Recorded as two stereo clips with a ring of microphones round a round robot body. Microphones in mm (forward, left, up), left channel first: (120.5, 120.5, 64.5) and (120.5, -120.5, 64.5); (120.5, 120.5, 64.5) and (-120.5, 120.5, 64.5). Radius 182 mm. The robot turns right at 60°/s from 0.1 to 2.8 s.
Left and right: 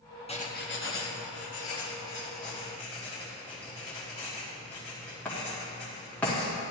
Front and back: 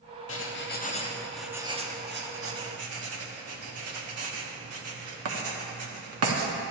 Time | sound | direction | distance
0.3 | writing | 25° left | 1.2 m